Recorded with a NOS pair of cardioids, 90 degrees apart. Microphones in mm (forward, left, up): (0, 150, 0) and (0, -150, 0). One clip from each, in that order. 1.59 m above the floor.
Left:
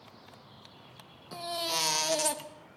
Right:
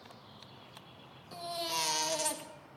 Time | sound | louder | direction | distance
1.3 | a baby crying | left 3 dB | 25° left | 1.8 m